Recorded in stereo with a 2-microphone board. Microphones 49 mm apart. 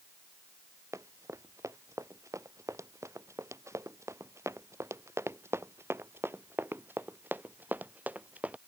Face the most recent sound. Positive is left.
turn(degrees=-25)  # may be behind; listen again after turning